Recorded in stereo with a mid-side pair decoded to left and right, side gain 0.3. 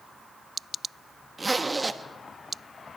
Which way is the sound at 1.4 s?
30° right.